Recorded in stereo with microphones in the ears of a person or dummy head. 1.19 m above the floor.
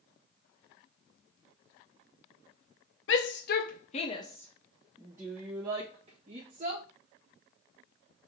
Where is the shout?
65° left (ahead or behind), 0.9 m; by 6.8 s 35° right (ahead or behind), 1.6 m.